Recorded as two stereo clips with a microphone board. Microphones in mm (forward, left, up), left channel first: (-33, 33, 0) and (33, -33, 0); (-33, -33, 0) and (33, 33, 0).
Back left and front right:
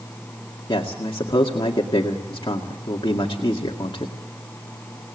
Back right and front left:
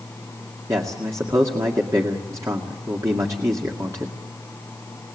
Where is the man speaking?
100° left, 2.0 m.